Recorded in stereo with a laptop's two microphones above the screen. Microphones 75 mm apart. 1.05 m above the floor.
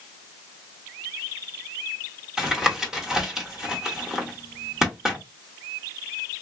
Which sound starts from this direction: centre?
Tapping, at 2.4 s.